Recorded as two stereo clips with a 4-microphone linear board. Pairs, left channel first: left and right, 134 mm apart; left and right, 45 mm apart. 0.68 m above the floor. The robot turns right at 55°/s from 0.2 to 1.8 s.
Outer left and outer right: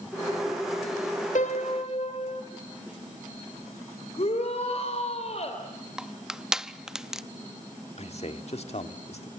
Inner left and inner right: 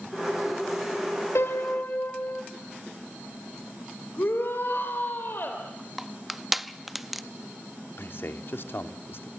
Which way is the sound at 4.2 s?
50° left (ahead or behind).